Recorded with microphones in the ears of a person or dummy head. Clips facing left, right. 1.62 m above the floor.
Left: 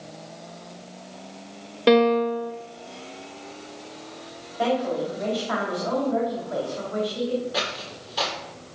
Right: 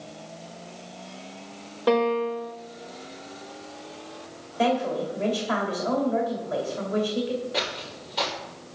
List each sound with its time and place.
1.9 s a piano: 35° left (ahead or behind), 1.2 m
4.6 s a woman speaking: 35° right (ahead or behind), 2.5 m
7.5 s footsteps: 10° left (ahead or behind), 2.5 m